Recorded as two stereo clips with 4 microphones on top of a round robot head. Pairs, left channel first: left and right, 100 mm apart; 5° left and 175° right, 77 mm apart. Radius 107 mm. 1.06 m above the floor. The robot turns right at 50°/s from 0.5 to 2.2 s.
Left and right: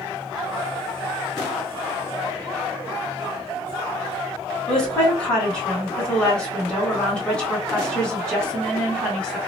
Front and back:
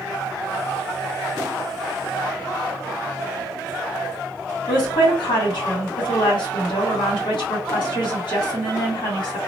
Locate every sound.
4.7 s a woman speaking: 10° left, 1.5 m